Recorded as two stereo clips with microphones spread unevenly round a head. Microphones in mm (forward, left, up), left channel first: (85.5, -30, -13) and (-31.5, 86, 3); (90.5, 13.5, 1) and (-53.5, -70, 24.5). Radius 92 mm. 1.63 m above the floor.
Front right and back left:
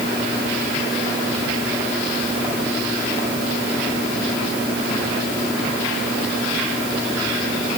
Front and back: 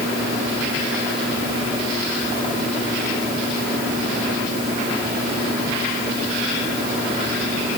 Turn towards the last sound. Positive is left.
No sound to turn to.